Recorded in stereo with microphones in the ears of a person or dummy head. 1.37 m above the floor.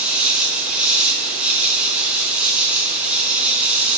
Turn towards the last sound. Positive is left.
turn(degrees=-5)  # may be behind; listen again after turning